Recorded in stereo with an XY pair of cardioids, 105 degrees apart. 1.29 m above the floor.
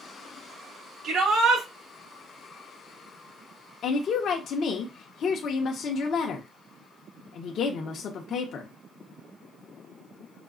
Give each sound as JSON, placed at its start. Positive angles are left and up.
{"t": 1.0, "sound": "a shout", "azimuth_deg": -70, "distance_m": 2.5}
{"t": 3.8, "sound": "a woman speaking", "azimuth_deg": 60, "distance_m": 0.9}